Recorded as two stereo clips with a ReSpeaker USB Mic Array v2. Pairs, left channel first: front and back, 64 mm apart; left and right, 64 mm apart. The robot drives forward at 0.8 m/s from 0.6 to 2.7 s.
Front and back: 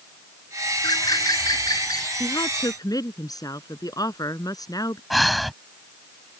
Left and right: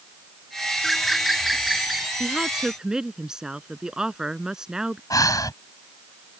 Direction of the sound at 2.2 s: 10° right.